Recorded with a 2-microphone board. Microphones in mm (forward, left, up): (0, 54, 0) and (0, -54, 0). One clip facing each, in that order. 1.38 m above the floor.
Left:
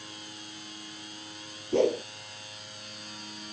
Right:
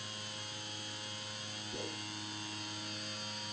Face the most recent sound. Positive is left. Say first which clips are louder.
# left 21 dB
turn(degrees=80)